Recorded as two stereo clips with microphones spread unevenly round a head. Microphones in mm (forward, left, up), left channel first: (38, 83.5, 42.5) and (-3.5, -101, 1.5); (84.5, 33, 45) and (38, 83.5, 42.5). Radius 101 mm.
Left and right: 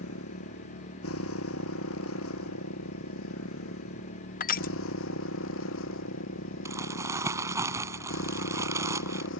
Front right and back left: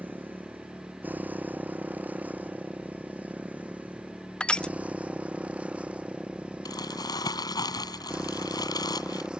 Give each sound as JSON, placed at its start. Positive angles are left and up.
{"t": 0.0, "sound": "a motorcycle", "azimuth_deg": 70}
{"t": 4.4, "sound": "crushing", "azimuth_deg": 30}
{"t": 6.7, "sound": "crumpling", "azimuth_deg": -25}